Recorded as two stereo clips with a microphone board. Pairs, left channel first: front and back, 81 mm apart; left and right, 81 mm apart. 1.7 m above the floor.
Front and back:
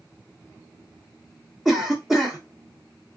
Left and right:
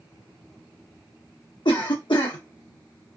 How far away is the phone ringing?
I don't hear a phone ringing.